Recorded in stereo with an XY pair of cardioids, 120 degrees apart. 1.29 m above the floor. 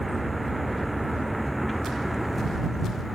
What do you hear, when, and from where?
0.0 s a vehicle: 5° right; by 3.1 s straight ahead